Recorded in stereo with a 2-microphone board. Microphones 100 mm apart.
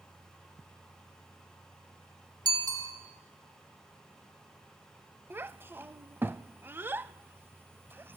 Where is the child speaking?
20° right (ahead or behind), 0.5 m.